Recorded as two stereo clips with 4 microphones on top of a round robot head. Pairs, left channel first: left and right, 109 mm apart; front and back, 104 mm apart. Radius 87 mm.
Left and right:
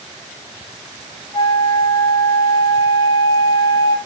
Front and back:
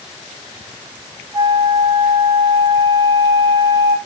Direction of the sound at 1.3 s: 135° left.